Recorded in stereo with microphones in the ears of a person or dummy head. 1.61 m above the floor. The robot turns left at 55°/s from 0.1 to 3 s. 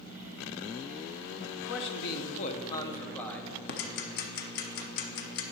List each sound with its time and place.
1.6 s a man speaking: 90° left, 0.9 m; by 3.5 s 10° left, 0.9 m
3.7 s ticking: 55° left (ahead or behind), 0.8 m